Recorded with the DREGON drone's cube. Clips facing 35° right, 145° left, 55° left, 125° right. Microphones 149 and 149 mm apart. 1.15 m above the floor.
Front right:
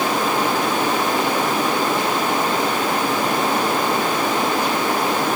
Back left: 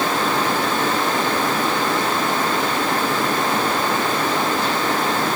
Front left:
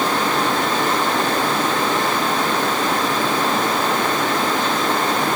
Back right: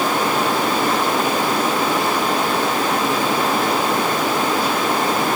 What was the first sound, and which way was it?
Only background noise.